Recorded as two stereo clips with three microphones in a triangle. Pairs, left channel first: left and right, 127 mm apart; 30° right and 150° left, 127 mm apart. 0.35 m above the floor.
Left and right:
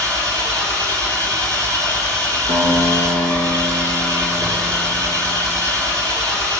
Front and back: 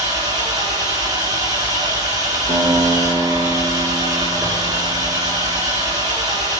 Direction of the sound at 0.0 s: 150° right.